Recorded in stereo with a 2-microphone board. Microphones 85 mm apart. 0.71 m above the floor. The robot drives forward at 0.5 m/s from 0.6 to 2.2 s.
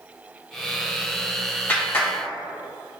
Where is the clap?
25° left (ahead or behind), 2.5 m.